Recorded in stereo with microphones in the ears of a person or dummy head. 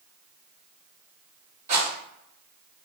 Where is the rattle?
45° right (ahead or behind), 1.5 m.